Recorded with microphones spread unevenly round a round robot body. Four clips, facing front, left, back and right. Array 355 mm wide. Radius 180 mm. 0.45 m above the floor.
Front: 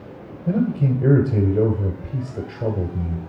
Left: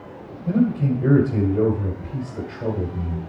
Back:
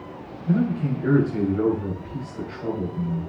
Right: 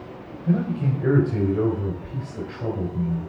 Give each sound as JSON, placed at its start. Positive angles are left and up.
{"t": 0.5, "sound": "a man speaking", "azimuth_deg": 10, "distance_m": 2.5}